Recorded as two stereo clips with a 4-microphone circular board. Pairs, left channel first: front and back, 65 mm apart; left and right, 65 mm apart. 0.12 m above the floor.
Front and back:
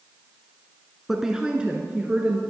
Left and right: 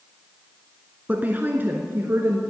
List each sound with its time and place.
1.1 s a woman speaking: 100° right, 1.2 m; by 2.4 s 125° right, 1.7 m